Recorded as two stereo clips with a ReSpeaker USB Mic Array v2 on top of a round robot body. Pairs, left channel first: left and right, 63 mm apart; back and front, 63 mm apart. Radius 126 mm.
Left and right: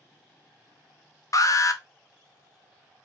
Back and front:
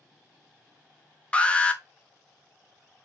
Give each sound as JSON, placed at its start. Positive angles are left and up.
{"t": 1.3, "sound": "an alarm", "azimuth_deg": 110, "distance_m": 1.0}